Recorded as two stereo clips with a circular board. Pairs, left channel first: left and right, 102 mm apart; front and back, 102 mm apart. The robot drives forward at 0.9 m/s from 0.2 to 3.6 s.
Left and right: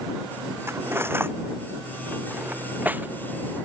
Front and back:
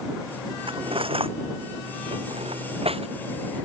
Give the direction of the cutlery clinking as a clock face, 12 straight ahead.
5 o'clock.